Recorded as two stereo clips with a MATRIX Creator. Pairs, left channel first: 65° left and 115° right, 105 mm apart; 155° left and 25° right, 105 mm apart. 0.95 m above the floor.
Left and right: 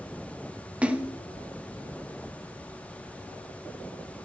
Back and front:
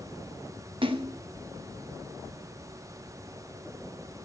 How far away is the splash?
About 1.2 m.